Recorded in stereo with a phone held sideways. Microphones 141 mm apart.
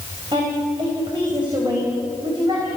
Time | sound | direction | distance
0.3 | a woman speaking | 35° right (ahead or behind) | 4 m